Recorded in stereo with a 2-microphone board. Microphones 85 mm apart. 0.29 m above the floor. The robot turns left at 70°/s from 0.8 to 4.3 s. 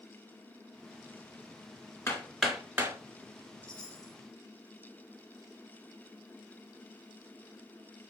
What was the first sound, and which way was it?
Hammering, 30° left (ahead or behind).